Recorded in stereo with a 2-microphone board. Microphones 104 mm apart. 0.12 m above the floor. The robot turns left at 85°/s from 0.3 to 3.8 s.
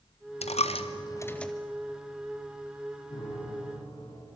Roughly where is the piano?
Behind left.